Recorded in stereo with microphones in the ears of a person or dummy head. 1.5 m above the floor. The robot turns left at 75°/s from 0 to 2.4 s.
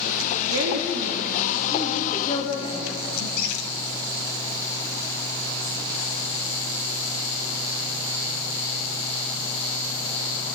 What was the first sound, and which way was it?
A woman speaking, 70° right.